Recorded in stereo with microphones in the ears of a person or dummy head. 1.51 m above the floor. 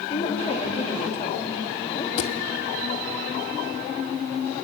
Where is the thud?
35° left (ahead or behind), 1.4 m.